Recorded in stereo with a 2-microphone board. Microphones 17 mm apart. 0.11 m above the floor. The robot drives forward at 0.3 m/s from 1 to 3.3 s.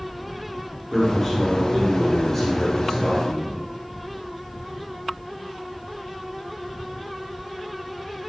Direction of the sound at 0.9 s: 15° left (ahead or behind).